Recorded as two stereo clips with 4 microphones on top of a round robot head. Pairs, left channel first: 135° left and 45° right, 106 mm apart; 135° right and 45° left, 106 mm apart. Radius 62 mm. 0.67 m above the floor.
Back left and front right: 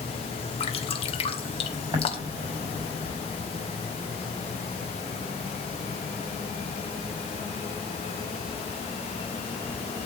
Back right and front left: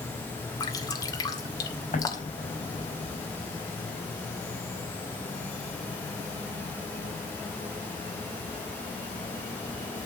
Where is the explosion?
105° right, 5.5 m.